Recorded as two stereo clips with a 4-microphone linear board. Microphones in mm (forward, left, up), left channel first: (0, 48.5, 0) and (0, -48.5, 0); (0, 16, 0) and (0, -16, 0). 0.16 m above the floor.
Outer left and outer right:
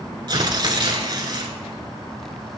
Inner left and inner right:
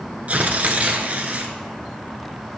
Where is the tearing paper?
45° right (ahead or behind), 0.9 m.